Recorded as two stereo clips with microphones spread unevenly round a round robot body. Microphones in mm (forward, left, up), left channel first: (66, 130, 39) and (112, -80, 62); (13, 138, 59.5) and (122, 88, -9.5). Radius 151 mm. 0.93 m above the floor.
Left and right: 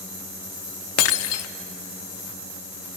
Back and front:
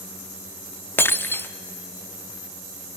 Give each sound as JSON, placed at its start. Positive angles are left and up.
{"t": 1.0, "sound": "breaking glass", "azimuth_deg": 85, "distance_m": 0.9}